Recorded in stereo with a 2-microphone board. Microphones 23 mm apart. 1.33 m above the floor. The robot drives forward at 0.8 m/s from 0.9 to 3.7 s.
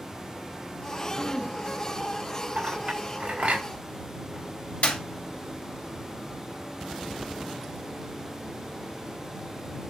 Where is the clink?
70° right (ahead or behind), 4 m; by 3.6 s 60° right (ahead or behind), 4.5 m.